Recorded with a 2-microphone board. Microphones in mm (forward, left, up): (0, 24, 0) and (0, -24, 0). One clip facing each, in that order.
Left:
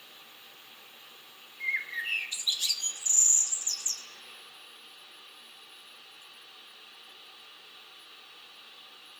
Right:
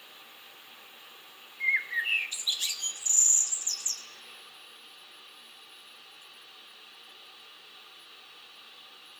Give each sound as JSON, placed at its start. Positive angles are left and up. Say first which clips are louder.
{"t": 1.6, "sound": "a bird", "louder": "right 4 dB", "side_deg": -25, "distance_m": 1.5}